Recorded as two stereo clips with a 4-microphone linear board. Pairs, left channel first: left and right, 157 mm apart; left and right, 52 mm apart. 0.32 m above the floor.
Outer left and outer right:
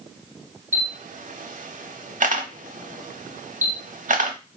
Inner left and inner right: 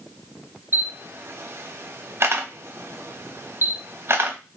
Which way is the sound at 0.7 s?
55° right (ahead or behind).